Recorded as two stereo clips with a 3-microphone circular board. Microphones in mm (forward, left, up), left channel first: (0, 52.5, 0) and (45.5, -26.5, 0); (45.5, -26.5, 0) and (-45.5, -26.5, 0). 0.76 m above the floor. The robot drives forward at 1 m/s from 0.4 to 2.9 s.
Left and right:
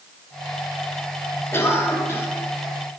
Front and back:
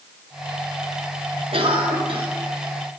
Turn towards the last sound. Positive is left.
turn(degrees=180)